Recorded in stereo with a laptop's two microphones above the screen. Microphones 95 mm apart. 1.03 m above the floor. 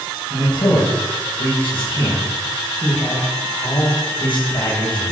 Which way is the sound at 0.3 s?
60° left (ahead or behind).